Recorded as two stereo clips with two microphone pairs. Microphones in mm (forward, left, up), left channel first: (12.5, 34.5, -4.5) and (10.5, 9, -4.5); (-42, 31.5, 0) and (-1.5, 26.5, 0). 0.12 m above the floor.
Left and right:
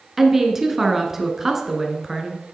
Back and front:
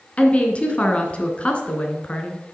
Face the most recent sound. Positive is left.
turn(degrees=-165)